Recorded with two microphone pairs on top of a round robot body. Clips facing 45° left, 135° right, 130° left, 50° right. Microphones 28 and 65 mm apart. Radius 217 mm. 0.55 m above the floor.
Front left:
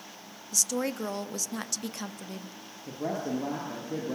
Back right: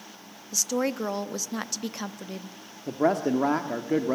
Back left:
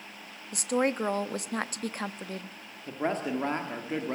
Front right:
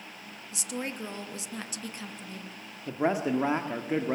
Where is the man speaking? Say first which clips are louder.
Back right 8 dB, front right 3 dB; 130° right, 1.7 m.